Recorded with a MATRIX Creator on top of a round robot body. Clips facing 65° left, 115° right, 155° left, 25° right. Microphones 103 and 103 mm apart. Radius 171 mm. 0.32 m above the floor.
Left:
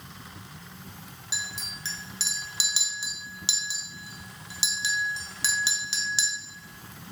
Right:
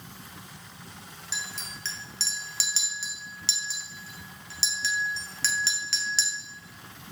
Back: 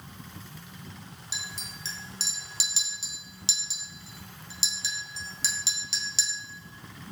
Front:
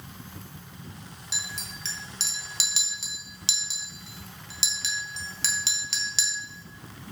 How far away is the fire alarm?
No fire alarm in this recording.